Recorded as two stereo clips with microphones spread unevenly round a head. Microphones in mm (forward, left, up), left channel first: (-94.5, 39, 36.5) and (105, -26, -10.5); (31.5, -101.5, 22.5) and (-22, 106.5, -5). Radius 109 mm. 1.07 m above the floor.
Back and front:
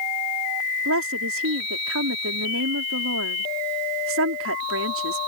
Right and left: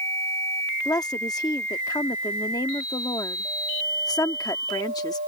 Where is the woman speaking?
Straight ahead.